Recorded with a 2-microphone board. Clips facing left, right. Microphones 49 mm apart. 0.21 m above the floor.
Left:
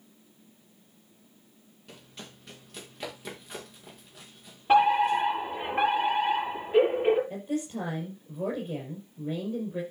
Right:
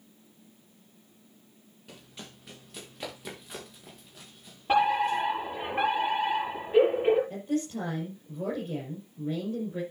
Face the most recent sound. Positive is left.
turn(degrees=15)  # may be behind; listen again after turning